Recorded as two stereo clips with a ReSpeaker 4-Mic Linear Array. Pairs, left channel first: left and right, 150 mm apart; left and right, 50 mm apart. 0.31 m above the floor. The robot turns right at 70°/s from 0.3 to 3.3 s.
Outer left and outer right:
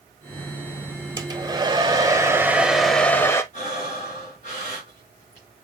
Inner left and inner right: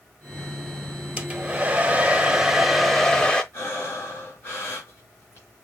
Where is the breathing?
50° left (ahead or behind), 4 m.